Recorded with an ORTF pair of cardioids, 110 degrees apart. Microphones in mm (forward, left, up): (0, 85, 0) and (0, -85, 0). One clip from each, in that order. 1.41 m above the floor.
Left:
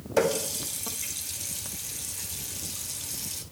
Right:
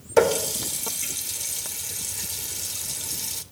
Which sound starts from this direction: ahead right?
A running tap, at 0.2 s.